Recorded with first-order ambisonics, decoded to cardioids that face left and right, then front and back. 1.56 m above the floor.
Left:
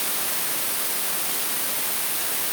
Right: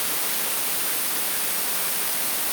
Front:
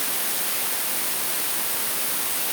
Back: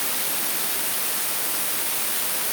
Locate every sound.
Only background noise.